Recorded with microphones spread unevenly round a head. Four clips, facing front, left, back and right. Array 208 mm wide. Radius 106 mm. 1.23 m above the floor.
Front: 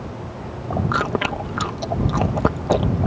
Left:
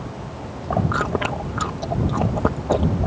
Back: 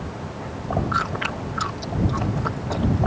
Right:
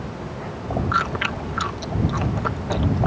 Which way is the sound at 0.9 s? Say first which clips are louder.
Left 1 dB, front 3 dB; 35° left.